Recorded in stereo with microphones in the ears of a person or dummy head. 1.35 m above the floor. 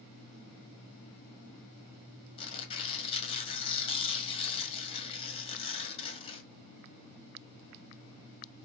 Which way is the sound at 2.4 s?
30° left (ahead or behind).